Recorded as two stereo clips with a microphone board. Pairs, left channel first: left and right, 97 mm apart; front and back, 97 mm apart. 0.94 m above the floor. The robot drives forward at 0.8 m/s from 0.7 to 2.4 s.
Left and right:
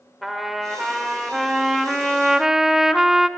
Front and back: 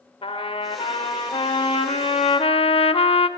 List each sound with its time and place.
0.2 s a trumpet: straight ahead, 2 m; by 3.3 s 5° right, 0.8 m